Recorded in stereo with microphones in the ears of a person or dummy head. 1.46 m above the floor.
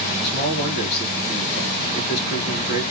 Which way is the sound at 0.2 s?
55° left (ahead or behind).